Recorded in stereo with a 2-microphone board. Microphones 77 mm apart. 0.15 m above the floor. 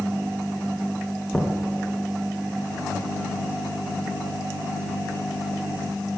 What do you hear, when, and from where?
1.3 s knocking: 10° left (ahead or behind), 1.7 m